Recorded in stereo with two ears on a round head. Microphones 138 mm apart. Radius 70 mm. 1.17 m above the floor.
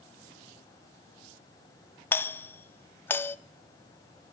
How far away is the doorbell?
About 0.5 m.